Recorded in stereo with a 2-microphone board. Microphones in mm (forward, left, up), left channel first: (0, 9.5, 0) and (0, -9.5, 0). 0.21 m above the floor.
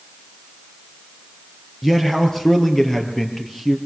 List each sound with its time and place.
1.8 s a man speaking: 20° left (ahead or behind), 4 m